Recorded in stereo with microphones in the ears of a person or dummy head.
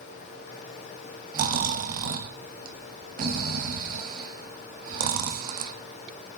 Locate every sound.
1.3 s snoring: 45° right (ahead or behind), 1.7 m